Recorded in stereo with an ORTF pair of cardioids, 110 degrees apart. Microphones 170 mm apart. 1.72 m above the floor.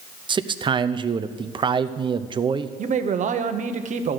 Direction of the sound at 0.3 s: 30° right.